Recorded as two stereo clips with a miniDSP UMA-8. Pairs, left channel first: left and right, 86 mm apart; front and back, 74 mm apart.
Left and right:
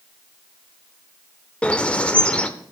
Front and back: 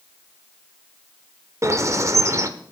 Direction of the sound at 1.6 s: 160° left.